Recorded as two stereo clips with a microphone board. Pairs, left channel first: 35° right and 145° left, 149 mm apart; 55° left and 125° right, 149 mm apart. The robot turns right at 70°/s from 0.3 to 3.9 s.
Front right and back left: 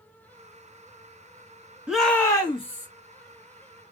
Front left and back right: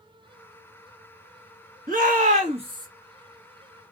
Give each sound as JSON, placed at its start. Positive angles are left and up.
{"t": 1.9, "sound": "a shout", "azimuth_deg": -130, "distance_m": 1.4}